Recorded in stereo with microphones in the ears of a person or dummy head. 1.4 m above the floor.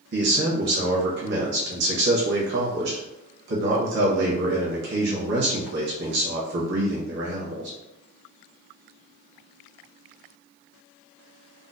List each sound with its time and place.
0.1 s a man speaking: 65° right (ahead or behind), 1.1 m